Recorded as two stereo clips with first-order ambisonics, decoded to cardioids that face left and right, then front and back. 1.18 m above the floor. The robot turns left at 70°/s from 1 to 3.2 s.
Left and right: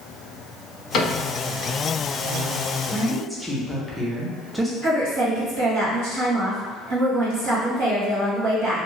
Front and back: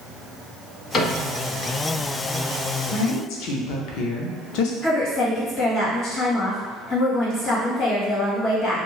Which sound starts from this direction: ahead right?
A woman speaking, at 4.8 s.